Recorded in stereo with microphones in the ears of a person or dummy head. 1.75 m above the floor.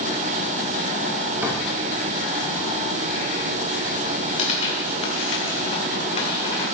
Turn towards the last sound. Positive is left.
turn(degrees=35)  # may be behind; listen again after turning